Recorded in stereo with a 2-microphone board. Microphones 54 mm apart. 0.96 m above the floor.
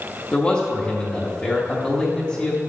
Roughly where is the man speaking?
Centre.